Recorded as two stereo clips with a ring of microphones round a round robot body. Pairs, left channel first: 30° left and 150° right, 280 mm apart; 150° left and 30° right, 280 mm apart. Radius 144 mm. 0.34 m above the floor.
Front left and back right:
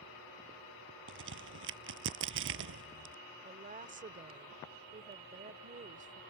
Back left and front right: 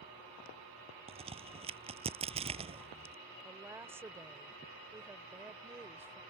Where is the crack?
100° right.